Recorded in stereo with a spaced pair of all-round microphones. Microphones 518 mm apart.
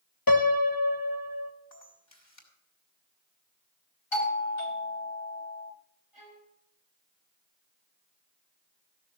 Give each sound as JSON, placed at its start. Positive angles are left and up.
{"t": 0.3, "sound": "a piano", "side_deg": 40, "distance_m": 0.9}
{"t": 1.7, "sound": "a camera shutter", "side_deg": 30, "distance_m": 3.5}
{"t": 4.1, "sound": "a doorbell", "side_deg": 65, "distance_m": 2.5}
{"t": 6.1, "sound": "a violin", "side_deg": -80, "distance_m": 5.0}